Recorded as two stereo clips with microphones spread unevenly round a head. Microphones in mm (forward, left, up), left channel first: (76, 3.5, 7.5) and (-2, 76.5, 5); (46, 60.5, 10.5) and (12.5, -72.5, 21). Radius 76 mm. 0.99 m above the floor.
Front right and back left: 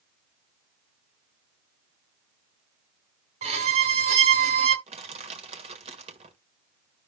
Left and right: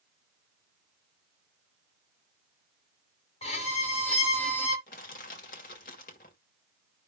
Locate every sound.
3.4 s a violin: 130° left, 1.5 m
4.9 s crushing: 115° left, 1.9 m